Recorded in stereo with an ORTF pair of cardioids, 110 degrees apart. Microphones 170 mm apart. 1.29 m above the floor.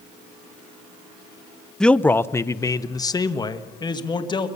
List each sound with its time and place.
1.8 s a man speaking: 5° left, 0.5 m; by 4.5 s 25° left, 2 m